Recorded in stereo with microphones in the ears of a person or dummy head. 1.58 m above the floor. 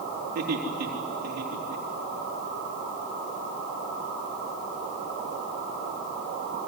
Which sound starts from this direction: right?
Laughter, at 0.3 s.